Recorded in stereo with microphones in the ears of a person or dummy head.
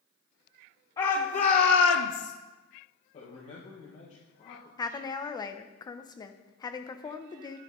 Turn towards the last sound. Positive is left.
turn(degrees=10)  # may be behind; listen again after turning